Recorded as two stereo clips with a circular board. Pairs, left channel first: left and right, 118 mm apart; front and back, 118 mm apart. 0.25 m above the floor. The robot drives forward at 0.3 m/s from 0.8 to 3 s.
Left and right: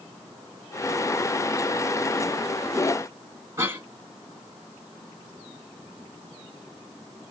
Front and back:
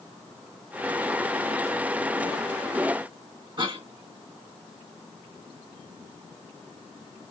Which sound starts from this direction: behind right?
A cough, at 3.6 s.